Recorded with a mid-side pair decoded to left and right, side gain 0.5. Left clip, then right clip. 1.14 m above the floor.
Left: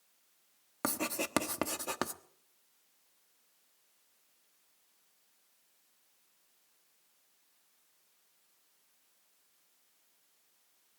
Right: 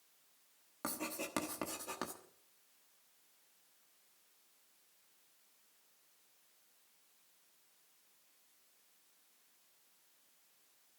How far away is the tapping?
No tapping in this recording.